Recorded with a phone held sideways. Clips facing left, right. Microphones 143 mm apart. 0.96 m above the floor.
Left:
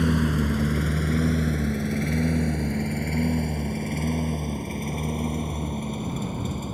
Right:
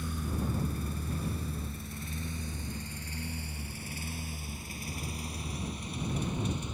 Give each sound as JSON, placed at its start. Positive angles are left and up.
{"t": 0.0, "sound": "a lawn mower", "side_deg": 80}